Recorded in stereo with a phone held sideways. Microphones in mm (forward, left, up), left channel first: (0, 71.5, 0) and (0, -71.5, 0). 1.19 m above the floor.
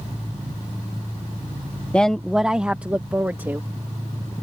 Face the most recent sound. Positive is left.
turn(degrees=-15)  # may be behind; listen again after turning